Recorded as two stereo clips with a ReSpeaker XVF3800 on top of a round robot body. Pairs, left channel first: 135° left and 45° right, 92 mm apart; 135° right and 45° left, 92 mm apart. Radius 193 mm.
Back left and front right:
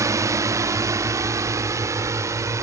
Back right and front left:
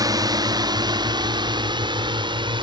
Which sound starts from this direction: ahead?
A drone, at 0.0 s.